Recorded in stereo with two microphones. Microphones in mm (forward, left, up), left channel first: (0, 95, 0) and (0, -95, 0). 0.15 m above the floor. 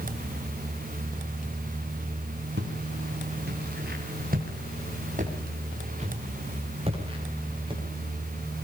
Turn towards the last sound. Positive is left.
turn(degrees=-25)  # may be behind; listen again after turning